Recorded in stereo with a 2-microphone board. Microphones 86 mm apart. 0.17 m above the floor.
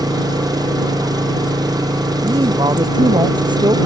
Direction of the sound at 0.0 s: 45° right (ahead or behind).